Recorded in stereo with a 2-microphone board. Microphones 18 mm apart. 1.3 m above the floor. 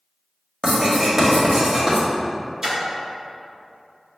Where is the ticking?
No ticking in this recording.